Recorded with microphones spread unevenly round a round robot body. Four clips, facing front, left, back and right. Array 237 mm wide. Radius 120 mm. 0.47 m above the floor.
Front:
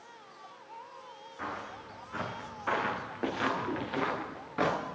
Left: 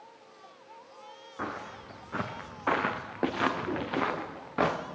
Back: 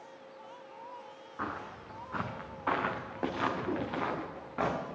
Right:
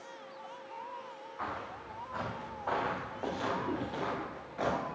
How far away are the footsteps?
About 1.7 m.